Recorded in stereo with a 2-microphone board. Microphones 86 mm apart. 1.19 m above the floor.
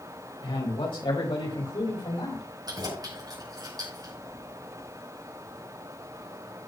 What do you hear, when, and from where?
0.4 s a man speaking: 85° left, 4 m; by 2.4 s 75° left (ahead or behind), 5 m
2.7 s keys jangling: 50° right (ahead or behind), 5 m